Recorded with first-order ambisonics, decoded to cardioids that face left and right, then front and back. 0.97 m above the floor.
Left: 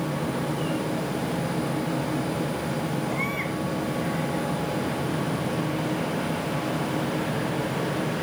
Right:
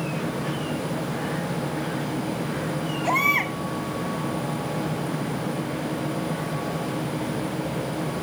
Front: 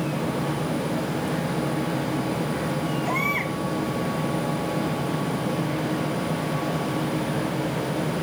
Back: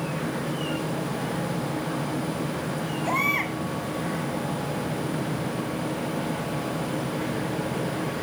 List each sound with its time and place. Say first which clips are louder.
3.0 s a baby crying: right 12 dB, back 2 dB; 105° right, 6 m